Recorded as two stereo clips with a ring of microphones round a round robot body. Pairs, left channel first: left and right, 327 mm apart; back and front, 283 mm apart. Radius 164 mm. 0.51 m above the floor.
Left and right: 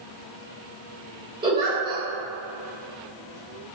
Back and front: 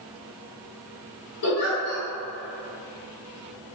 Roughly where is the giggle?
Behind.